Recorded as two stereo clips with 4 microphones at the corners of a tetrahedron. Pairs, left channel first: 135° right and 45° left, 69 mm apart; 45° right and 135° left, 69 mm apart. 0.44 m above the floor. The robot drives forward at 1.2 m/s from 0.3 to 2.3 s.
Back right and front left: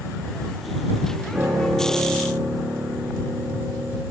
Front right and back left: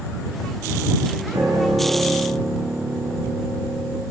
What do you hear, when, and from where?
1.3 s a piano: 125° left, 6 m; by 4.0 s 135° left, 7 m